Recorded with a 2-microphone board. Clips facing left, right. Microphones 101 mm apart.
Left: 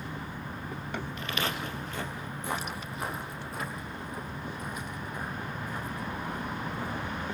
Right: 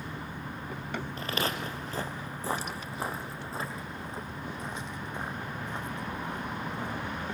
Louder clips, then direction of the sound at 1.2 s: Right 2 dB; 35° right (ahead or behind).